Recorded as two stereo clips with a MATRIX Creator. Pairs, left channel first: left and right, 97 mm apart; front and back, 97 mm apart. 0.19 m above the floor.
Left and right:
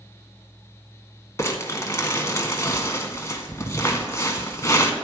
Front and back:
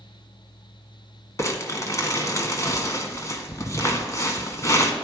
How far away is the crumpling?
About 1.3 m.